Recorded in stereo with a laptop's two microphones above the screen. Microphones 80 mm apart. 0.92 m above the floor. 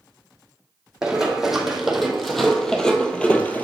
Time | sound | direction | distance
1.0 | running footsteps | 5° right (ahead or behind) | 1.8 m